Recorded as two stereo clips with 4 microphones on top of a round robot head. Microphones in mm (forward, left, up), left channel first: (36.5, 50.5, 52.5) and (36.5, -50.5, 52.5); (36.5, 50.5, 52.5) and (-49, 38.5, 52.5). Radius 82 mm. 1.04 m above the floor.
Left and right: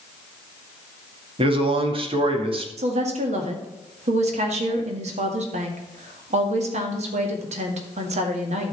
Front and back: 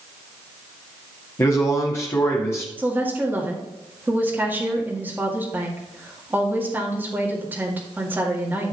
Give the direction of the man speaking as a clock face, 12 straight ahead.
2 o'clock.